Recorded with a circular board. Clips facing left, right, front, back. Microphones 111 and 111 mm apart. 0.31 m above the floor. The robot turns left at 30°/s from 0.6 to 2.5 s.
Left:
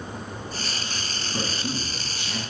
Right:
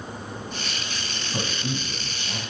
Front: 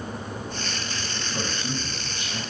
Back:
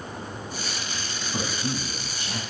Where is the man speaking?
125° right, 2.5 m; by 2.4 s 160° right, 2.5 m.